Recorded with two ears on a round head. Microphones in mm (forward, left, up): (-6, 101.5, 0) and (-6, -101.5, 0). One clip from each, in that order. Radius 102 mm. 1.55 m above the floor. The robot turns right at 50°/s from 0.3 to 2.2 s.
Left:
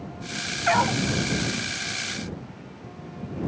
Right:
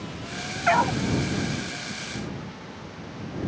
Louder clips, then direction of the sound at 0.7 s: Right 1 dB; 5° right (ahead or behind).